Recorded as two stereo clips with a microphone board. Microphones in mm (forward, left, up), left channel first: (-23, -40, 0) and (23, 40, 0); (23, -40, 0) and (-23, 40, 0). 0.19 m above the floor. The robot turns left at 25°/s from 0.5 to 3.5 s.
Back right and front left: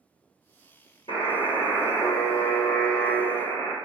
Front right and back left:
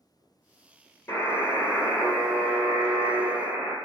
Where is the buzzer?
120° right, 1.1 m; by 3.8 s straight behind, 1.1 m.